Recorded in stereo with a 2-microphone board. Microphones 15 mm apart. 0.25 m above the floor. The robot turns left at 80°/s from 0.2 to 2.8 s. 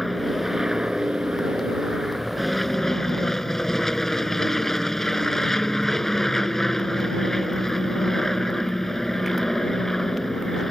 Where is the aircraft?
Straight ahead; by 10.7 s 150° left.